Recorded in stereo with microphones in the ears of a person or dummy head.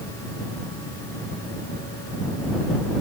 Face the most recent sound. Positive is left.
No sound to turn to.